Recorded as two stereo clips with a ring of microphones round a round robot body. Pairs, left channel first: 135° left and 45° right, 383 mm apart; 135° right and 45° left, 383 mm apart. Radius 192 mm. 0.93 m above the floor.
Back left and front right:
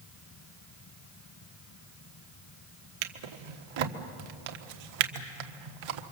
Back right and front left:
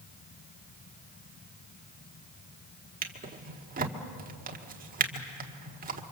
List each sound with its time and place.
3.0 s a drawer: 25° right, 1.4 m